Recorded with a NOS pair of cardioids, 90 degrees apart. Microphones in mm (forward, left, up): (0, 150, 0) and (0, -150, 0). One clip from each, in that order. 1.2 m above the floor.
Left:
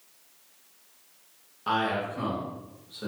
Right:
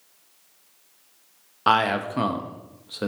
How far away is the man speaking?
About 0.5 m.